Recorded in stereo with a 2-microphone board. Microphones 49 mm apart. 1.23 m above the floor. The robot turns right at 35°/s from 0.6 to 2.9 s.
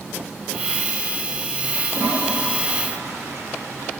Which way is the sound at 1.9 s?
110° right.